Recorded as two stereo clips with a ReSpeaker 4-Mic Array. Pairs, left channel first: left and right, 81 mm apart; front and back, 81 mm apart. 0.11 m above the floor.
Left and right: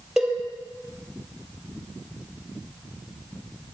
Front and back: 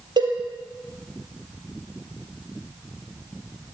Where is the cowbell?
175° right, 3.5 m.